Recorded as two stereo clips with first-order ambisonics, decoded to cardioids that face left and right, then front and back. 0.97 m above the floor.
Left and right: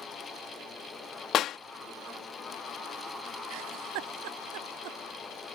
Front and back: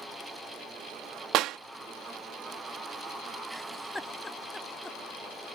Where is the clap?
140° left.